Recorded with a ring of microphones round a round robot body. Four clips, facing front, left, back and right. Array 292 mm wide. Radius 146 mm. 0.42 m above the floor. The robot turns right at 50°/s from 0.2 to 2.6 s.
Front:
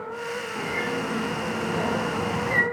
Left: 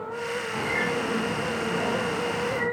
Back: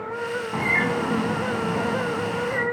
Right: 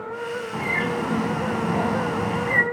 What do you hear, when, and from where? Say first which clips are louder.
0.5 s a bird: right 2 dB, back 5 dB; 165° right, 1.4 m; by 2.6 s 60° right, 1.4 m